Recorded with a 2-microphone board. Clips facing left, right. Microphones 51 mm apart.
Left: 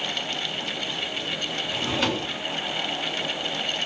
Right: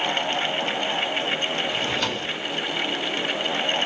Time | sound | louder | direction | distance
1.7 | a drawer | even | 10° left (ahead or behind) | 0.9 m